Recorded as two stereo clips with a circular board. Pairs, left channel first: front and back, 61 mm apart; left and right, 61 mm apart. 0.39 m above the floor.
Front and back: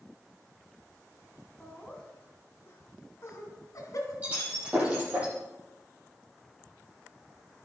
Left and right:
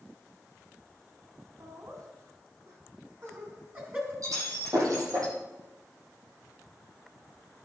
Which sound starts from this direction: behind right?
Breaking glass, at 4.2 s.